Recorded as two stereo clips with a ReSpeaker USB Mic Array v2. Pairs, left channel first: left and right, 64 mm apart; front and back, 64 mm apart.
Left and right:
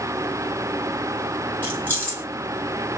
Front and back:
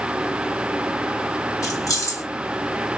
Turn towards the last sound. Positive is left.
turn(degrees=25)